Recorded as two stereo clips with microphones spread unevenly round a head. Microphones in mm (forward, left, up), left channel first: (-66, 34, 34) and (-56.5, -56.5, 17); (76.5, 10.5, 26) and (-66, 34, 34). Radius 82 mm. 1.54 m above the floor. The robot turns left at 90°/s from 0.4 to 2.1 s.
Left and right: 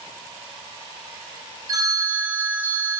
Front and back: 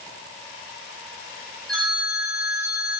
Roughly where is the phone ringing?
Right.